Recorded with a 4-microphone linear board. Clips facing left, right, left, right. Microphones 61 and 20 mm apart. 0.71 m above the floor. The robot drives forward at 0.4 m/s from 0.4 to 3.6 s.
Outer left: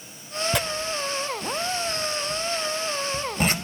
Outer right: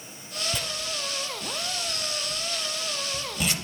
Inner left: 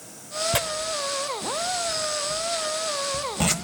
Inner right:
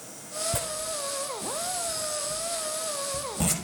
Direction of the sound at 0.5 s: 75° left (ahead or behind).